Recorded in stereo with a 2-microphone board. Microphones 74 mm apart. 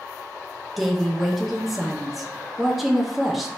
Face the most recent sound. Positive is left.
turn(degrees=0)  # may be behind; listen again after turning